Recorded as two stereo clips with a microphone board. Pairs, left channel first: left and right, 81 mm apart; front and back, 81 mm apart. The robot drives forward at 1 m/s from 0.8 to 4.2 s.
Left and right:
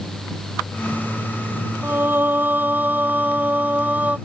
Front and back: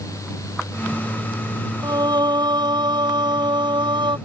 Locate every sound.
1.8 s singing: 155° right; by 4.2 s 160° right